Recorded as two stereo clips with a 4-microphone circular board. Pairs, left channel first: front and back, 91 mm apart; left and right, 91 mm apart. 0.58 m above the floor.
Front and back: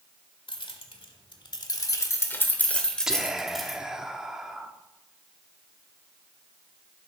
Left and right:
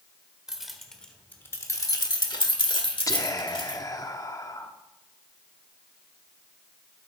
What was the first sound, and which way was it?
Keys jangling, 5° right.